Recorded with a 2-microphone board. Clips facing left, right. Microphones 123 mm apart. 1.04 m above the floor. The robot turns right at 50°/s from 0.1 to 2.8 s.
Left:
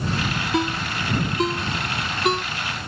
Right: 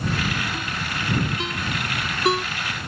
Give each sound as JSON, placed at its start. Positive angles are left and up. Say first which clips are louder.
{"t": 0.5, "sound": "a ringtone", "louder": "left 6 dB", "side_deg": 85}